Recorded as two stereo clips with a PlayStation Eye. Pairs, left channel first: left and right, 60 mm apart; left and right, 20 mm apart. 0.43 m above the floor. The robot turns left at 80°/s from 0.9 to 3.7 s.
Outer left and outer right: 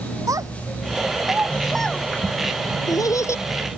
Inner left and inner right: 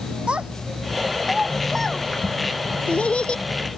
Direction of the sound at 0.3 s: 70° right (ahead or behind).